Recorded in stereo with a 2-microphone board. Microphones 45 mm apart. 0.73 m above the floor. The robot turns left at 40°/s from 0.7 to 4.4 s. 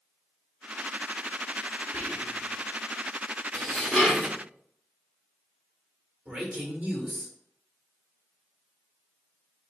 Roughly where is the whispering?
Right.